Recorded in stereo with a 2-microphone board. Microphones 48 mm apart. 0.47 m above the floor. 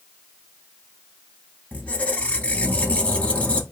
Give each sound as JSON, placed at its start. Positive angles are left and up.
{"t": 1.7, "sound": "a squeak", "side_deg": 30, "distance_m": 0.5}